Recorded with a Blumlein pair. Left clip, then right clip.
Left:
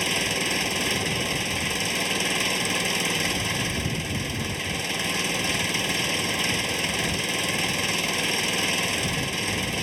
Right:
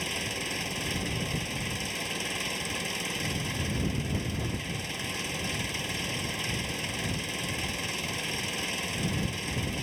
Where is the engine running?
25° left.